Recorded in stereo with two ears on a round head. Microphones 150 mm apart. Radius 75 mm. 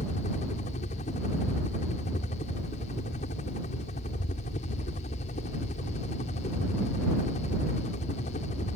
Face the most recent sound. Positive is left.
turn(degrees=45)  # may be behind; listen again after turning